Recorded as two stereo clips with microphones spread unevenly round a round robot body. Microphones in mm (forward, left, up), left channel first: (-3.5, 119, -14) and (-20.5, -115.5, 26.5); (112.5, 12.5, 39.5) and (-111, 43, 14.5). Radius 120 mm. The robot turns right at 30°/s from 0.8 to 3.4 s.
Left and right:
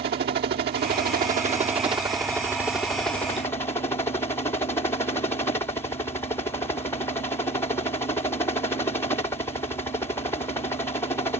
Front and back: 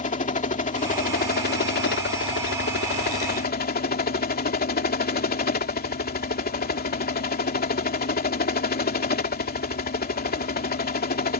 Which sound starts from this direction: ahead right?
A helicopter, at 0.0 s.